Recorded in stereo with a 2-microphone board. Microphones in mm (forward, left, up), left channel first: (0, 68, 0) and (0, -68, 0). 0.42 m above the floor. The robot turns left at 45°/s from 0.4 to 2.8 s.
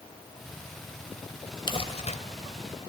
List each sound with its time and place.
1.7 s crumpling: 35° left (ahead or behind), 1.5 m; by 2.2 s 55° left (ahead or behind), 1.5 m